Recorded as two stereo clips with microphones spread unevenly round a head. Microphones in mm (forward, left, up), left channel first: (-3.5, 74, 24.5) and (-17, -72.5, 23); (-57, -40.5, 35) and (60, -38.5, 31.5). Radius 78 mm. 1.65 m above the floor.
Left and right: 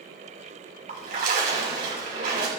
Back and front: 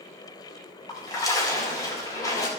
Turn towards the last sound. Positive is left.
turn(degrees=-120)